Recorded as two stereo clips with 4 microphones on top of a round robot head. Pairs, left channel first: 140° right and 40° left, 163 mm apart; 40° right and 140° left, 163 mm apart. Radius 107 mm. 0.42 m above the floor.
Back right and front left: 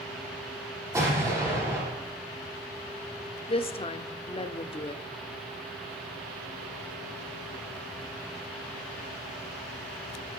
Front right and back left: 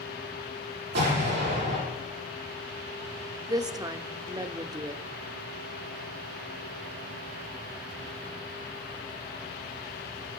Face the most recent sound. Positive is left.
turn(degrees=-170)